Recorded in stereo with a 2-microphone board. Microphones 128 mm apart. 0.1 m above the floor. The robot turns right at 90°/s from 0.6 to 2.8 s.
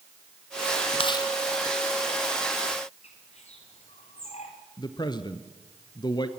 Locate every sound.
1.0 s chewing: 50° left (ahead or behind), 2.5 m; by 1.3 s 20° left (ahead or behind), 2.5 m
3.0 s a bird: 60° left (ahead or behind), 4.5 m
4.8 s a man speaking: 35° left (ahead or behind), 1.4 m